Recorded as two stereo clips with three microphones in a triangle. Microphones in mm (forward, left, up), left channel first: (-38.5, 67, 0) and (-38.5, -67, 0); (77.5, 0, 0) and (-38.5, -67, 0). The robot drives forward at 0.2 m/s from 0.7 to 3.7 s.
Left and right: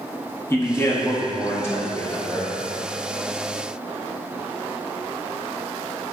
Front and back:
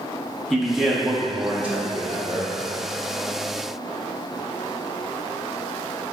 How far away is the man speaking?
About 0.7 m.